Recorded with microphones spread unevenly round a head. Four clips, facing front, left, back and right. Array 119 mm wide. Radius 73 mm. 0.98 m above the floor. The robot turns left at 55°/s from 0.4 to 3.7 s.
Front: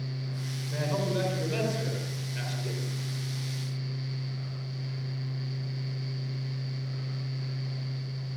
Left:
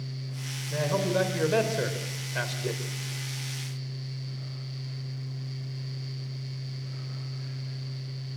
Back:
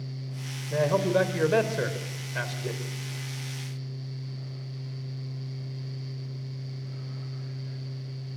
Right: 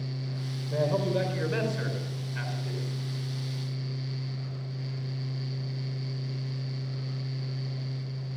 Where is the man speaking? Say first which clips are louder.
Even, back 7 dB; 145° right, 4.5 m; by 2.8 s 95° left, 4.5 m.